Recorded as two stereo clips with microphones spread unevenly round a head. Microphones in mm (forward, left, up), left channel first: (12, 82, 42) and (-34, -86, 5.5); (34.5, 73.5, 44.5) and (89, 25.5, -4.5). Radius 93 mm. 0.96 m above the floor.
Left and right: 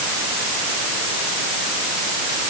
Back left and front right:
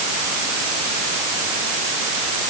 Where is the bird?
I don't hear a bird.